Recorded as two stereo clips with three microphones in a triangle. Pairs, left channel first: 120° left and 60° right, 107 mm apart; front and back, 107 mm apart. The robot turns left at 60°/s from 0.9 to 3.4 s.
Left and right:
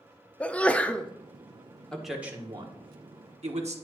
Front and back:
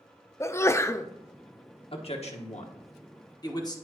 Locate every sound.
0.4 s a sneeze: 50° left, 0.5 m; by 1.1 s 40° left, 0.5 m
1.9 s a man speaking: 35° left, 1.2 m; by 3.8 s 50° right, 1.2 m